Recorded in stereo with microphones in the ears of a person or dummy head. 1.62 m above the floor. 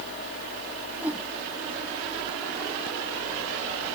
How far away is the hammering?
I don't hear hammering.